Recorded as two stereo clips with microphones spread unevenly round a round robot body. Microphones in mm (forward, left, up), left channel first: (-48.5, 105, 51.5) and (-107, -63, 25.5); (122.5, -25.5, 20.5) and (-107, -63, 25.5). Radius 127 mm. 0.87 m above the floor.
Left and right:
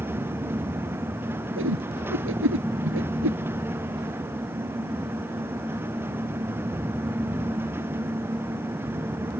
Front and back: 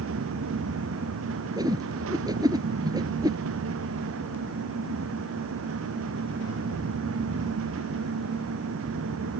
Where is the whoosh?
95° right.